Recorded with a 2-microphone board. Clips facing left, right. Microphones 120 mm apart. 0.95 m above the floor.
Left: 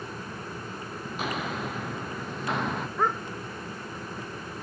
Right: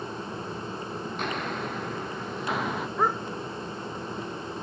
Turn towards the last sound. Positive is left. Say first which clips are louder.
# right 1 dB
turn(degrees=-10)  # may be behind; listen again after turning